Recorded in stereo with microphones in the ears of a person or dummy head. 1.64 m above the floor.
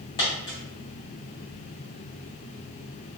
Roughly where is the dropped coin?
Left.